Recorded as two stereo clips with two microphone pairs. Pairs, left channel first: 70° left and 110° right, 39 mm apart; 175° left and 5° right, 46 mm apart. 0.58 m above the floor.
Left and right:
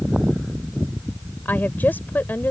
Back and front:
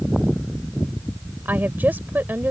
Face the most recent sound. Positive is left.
turn(degrees=40)